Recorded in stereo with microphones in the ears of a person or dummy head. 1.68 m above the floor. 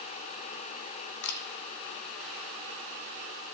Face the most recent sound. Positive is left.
turn(degrees=60)  # may be behind; listen again after turning